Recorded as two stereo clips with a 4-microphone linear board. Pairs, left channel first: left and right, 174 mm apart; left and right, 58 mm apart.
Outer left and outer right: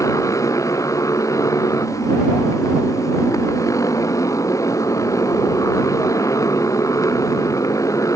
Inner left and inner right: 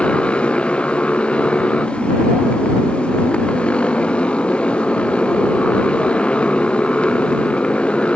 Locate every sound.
0.0 s a motorcycle: 20° left (ahead or behind)